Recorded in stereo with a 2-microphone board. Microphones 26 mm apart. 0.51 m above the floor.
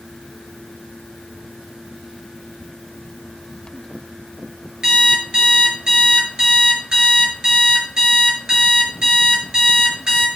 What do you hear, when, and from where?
4.8 s an alarm clock: 35° right (ahead or behind), 3.5 m